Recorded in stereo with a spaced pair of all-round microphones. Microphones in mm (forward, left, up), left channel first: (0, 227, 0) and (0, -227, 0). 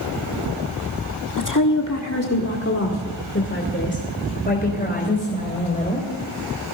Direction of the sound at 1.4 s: 40° left (ahead or behind).